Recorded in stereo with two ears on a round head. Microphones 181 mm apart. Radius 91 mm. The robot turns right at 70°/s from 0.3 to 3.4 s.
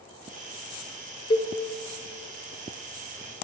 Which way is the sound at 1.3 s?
25° left (ahead or behind).